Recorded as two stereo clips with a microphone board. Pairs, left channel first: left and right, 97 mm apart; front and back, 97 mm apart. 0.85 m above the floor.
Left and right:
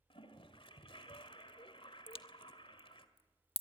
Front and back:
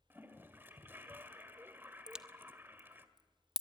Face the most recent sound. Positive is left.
turn(degrees=100)